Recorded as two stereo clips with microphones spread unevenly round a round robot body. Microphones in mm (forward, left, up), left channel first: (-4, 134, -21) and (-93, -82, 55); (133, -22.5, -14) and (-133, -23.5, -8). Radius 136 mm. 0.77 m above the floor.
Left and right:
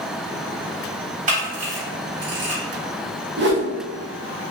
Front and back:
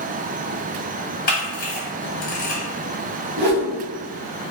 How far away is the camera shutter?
About 1.3 m.